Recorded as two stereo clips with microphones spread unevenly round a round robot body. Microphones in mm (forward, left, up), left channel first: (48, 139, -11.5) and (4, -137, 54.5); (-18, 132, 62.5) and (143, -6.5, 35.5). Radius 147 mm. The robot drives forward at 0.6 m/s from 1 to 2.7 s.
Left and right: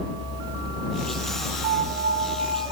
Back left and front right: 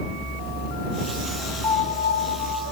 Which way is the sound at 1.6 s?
165° right.